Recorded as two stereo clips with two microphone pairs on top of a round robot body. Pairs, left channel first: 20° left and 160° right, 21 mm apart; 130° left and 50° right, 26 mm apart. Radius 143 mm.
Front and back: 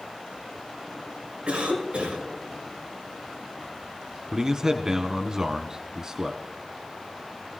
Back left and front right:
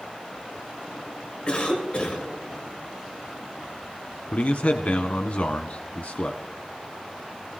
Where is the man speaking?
140° left, 1.2 m.